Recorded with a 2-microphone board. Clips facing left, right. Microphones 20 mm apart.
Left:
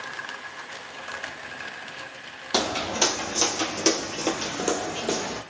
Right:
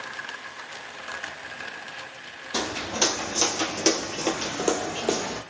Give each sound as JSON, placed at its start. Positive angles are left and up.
{"t": 2.5, "sound": "footsteps", "side_deg": 45, "distance_m": 1.1}